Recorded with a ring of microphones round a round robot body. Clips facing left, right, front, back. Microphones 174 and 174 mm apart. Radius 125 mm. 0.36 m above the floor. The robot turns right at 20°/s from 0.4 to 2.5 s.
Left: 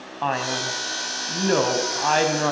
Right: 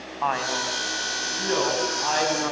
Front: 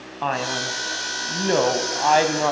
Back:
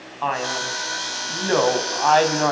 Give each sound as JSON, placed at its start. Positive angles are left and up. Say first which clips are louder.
{"t": 0.2, "sound": "a man speaking", "louder": "left 2 dB, even", "azimuth_deg": 40, "distance_m": 3.5}